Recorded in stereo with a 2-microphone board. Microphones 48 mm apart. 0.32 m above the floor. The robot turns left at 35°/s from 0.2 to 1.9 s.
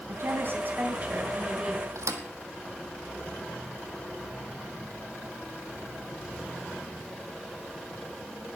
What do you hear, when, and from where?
0.1 s a woman speaking: 110° right, 3 m; by 1.9 s 165° right, 3 m
1.9 s a thud: 80° right, 1.5 m